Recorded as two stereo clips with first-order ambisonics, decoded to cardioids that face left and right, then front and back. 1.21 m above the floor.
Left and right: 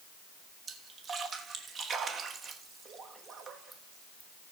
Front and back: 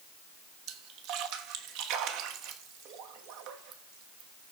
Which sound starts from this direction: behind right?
A splash, at 0.7 s.